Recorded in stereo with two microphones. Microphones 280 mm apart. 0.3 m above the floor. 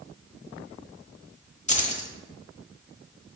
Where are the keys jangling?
25° left (ahead or behind), 1.0 m.